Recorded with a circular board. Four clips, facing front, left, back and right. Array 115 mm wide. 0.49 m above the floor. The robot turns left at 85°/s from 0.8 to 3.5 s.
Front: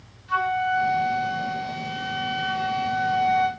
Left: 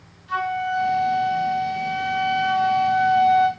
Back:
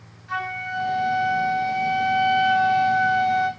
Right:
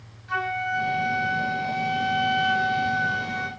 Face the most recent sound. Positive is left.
turn(degrees=5)